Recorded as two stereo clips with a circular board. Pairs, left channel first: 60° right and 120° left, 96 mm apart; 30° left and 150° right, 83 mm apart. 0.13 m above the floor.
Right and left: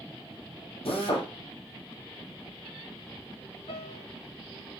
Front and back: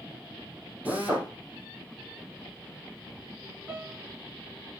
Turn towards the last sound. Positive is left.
turn(degrees=-80)